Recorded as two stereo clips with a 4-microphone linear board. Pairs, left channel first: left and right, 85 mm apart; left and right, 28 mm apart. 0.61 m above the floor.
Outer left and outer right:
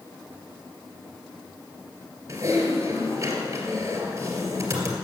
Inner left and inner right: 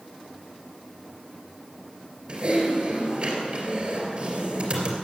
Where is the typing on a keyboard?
40° right (ahead or behind), 3 m.